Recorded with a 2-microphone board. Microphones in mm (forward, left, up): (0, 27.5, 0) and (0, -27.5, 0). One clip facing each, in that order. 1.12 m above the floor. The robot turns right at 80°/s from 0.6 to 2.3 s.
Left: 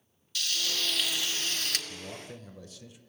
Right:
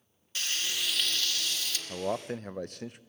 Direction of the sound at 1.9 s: 100° right.